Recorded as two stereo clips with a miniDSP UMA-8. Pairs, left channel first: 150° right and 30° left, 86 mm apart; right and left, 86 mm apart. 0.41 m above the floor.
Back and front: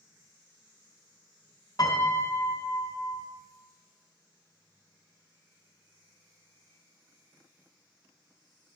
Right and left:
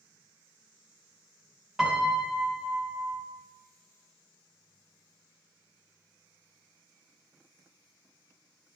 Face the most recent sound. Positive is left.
turn(degrees=175)